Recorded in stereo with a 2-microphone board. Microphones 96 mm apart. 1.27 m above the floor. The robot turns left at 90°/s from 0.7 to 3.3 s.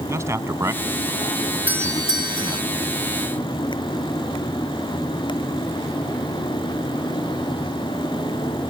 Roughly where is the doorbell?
Ahead.